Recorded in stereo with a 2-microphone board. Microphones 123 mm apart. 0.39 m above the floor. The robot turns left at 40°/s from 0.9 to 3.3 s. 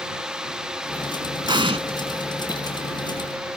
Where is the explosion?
40° right (ahead or behind); by 1.8 s 50° right (ahead or behind).